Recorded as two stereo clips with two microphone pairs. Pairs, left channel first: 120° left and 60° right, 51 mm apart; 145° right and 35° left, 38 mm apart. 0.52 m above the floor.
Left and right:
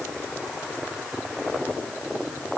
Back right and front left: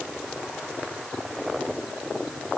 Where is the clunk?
No clunk in this recording.